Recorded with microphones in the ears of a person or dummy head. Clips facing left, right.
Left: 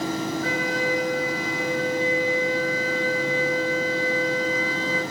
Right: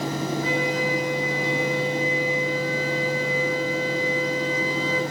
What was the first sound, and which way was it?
A flute, 25° right (ahead or behind).